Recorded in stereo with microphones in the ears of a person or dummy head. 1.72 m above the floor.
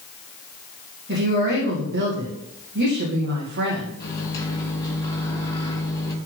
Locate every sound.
1.1 s a woman speaking: 55° right (ahead or behind), 2.5 m
4.0 s a microwave: 20° left (ahead or behind), 1.9 m